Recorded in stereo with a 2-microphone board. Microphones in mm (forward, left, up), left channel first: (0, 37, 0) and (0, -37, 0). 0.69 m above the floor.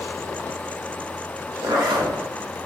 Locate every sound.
1.6 s a zipper: 85° right, 1.0 m